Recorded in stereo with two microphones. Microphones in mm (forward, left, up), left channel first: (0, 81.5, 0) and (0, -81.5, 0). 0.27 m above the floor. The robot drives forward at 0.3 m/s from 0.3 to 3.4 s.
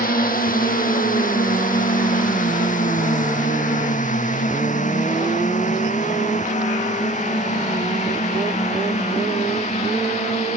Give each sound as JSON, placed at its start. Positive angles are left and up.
{"t": 0.0, "sound": "a drone", "side_deg": 60}